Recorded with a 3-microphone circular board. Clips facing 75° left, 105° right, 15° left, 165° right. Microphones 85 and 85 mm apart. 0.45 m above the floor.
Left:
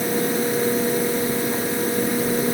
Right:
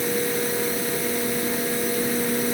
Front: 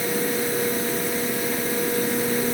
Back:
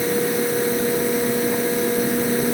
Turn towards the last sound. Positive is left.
No sound to turn to.